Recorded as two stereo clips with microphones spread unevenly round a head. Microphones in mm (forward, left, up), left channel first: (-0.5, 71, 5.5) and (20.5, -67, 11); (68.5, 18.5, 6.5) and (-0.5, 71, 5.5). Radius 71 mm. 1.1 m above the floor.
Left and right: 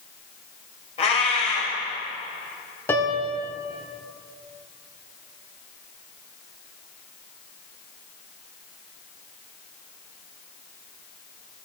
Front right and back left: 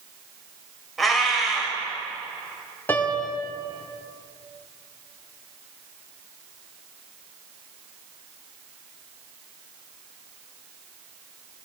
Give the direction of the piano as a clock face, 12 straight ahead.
11 o'clock.